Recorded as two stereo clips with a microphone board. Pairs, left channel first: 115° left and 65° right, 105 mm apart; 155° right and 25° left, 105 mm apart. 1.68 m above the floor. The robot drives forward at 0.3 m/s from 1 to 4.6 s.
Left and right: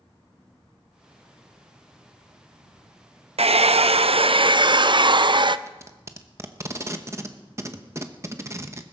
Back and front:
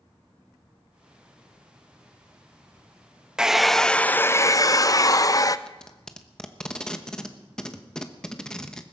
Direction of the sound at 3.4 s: 60° right.